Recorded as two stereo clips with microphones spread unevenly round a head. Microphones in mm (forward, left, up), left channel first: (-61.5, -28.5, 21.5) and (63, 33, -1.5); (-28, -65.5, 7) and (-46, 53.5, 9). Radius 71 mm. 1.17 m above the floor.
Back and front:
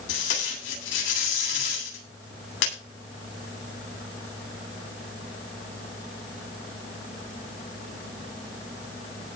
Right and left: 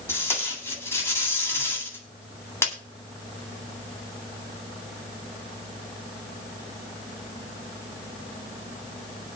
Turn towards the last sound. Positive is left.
turn(degrees=-150)